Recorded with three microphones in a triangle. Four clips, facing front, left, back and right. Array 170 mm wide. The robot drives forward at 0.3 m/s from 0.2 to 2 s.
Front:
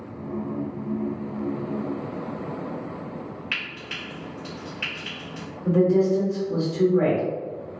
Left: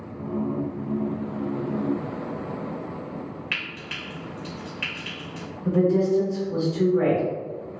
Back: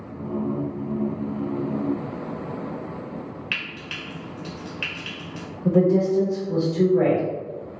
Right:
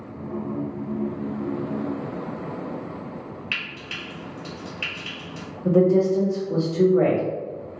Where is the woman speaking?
130° right, 1.2 m.